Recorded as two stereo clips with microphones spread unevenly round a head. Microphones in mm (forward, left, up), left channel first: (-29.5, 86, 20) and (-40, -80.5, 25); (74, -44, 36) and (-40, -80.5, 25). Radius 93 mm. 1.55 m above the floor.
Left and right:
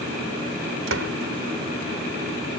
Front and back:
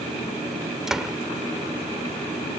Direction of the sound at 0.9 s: 75° right.